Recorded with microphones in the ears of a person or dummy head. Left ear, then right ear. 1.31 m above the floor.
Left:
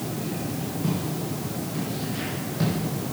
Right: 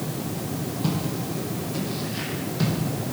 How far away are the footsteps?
About 3 m.